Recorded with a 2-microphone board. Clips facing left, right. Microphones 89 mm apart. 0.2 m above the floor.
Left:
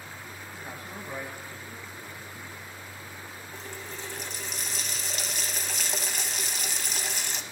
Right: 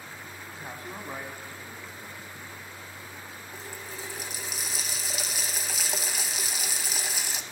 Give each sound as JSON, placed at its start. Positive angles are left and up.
{"t": 0.5, "sound": "a man speaking", "side_deg": -25, "distance_m": 1.3}
{"t": 3.5, "sound": "a running tap", "side_deg": -5, "distance_m": 0.6}